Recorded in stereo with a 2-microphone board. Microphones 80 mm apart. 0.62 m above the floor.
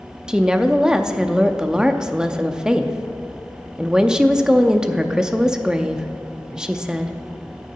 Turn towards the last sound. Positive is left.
turn(degrees=-10)  # may be behind; listen again after turning